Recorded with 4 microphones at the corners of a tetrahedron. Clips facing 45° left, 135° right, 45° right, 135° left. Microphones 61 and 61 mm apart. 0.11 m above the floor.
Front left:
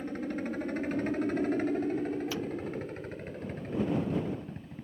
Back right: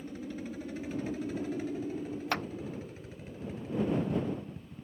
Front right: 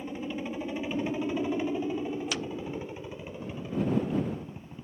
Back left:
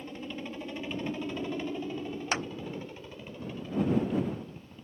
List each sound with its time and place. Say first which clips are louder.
0.0 s a helicopter: front left 6 dB, front right 4 dB; 25° left
2.3 s a clap: back right 2 dB, back left 2 dB; 170° right